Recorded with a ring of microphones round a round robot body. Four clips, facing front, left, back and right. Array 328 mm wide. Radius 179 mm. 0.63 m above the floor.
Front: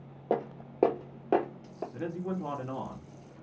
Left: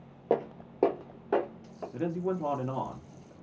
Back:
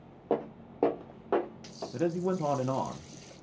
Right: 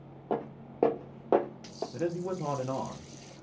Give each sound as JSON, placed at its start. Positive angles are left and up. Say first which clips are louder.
{"t": 0.3, "sound": "footsteps", "louder": "left 5 dB, even", "azimuth_deg": 85, "distance_m": 0.6}
{"t": 1.9, "sound": "a man speaking", "louder": "left 2 dB, back 7 dB", "azimuth_deg": 175, "distance_m": 0.8}